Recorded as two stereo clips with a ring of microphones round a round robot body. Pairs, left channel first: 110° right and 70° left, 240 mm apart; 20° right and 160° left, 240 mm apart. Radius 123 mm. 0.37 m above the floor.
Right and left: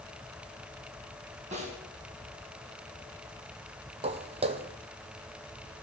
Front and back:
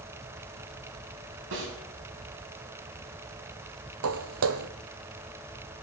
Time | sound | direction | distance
1.5 | a snare drum | 125° left | 3.5 m
4.0 | footsteps | 130° left | 0.8 m